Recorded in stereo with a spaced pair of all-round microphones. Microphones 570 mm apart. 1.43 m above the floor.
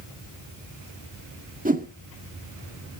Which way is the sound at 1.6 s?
15° right (ahead or behind).